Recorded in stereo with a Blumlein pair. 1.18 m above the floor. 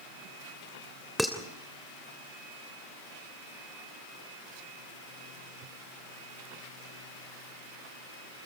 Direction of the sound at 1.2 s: Straight ahead.